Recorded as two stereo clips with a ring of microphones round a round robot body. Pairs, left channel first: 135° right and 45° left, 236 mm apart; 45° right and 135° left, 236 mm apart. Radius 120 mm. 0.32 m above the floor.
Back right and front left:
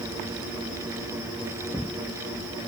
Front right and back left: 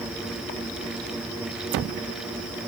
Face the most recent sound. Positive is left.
No sound to turn to.